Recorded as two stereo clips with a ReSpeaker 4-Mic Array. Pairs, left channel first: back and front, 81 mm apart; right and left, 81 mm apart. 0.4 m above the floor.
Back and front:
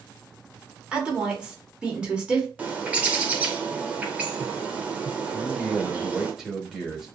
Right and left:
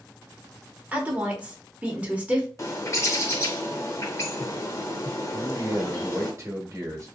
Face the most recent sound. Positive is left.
turn(degrees=80)